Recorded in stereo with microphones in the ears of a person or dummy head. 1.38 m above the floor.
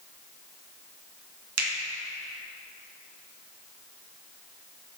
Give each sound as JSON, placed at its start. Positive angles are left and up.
{"t": 1.6, "sound": "a finger snap", "side_deg": -80, "distance_m": 1.8}